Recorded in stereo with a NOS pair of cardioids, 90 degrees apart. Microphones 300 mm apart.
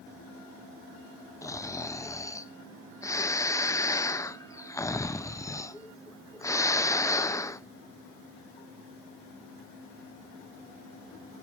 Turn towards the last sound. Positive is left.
turn(degrees=10)